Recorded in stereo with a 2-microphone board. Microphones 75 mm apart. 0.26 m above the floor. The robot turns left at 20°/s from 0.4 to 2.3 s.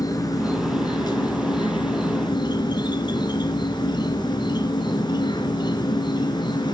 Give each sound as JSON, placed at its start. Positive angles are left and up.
{"t": 0.0, "sound": "an insect", "azimuth_deg": 125, "distance_m": 2.0}